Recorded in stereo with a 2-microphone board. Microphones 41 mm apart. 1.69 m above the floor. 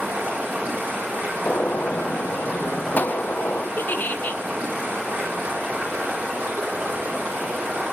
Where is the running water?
55° right (ahead or behind), 4 m.